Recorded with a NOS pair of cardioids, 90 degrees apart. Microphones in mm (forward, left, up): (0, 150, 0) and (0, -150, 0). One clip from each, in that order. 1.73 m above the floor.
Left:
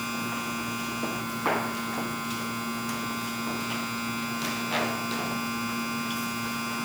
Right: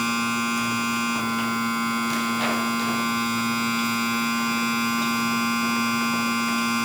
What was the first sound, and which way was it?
A machine running, 55° right.